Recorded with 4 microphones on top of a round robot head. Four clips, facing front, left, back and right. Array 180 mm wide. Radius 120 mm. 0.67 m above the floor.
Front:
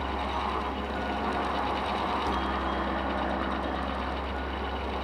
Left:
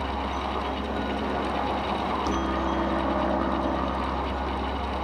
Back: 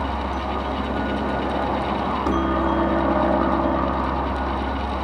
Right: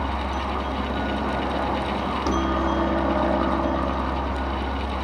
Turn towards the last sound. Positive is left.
turn(degrees=-170)